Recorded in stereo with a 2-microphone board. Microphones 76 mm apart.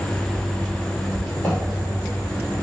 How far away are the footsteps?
About 1.6 m.